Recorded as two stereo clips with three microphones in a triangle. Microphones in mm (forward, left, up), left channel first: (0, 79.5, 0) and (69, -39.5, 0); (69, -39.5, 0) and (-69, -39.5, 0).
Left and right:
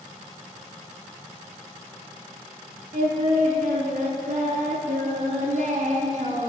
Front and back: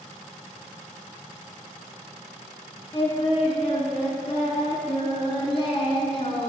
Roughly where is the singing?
Ahead right.